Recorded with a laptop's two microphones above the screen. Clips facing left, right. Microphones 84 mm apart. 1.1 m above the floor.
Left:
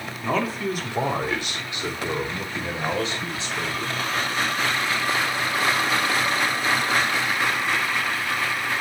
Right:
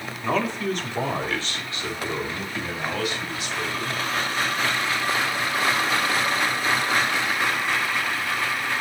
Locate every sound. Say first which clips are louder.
0.2 s a man speaking: even; 5° right (ahead or behind), 2.5 m; by 3.9 s 30° left (ahead or behind), 5.5 m